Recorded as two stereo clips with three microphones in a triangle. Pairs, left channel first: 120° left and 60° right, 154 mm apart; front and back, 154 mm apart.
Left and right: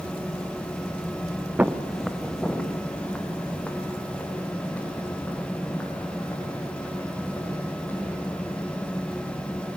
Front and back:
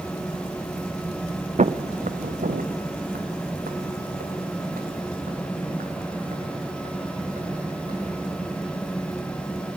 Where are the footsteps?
140° right, 0.7 m; by 7.9 s 160° right, 9 m.